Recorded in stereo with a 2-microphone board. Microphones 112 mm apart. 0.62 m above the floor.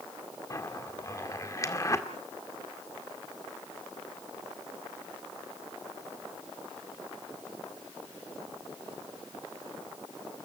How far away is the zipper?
About 1.8 m.